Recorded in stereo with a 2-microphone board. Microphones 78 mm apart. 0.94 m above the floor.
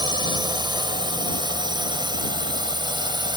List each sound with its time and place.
0.0 s a drone: 75° right (ahead or behind)